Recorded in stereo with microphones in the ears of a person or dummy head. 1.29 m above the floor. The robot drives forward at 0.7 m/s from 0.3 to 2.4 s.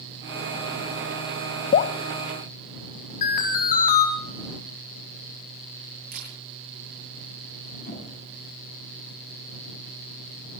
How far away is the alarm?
About 4.5 m.